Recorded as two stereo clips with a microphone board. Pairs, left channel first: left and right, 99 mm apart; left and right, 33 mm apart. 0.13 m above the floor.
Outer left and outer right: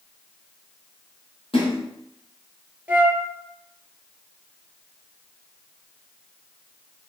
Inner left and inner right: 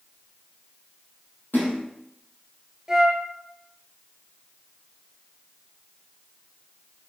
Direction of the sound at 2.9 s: 15° right (ahead or behind).